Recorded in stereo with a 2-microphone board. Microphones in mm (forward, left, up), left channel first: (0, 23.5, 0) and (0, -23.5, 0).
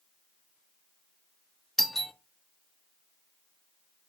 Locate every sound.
1.8 s a doorbell: 10° left (ahead or behind), 0.6 m